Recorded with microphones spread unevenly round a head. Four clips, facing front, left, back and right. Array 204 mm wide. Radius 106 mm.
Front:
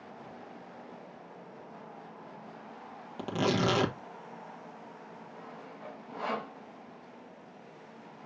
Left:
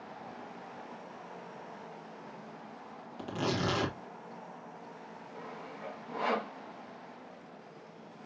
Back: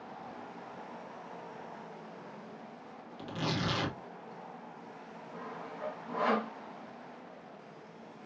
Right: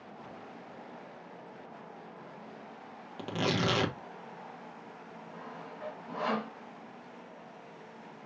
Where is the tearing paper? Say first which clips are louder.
Right 2 dB, front 7 dB; 25° right, 1.3 m.